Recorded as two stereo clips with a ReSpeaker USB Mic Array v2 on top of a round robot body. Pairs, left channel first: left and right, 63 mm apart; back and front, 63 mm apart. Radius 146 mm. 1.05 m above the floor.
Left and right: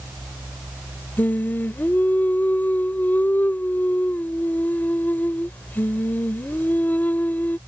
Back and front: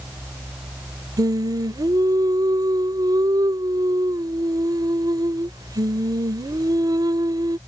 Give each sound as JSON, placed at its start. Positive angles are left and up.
{"t": 1.2, "sound": "singing", "azimuth_deg": 25}